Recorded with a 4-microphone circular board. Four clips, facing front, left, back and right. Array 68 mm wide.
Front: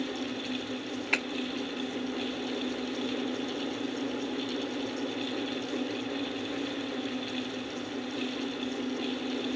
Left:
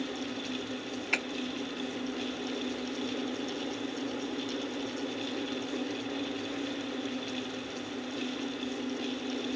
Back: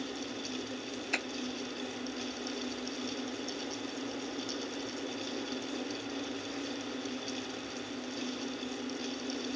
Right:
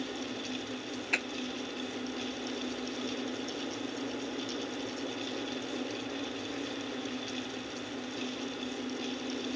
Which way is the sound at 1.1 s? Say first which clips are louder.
Left 1 dB, front 5 dB; 15° left.